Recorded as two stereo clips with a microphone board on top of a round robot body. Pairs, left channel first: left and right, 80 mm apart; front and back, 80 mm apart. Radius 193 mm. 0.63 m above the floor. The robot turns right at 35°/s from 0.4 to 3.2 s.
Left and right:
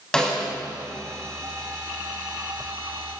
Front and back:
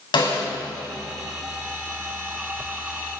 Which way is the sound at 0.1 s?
10° left.